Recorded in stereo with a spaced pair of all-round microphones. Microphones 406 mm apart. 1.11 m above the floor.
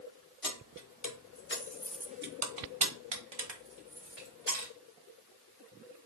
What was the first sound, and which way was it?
Keys jangling, 55° left (ahead or behind).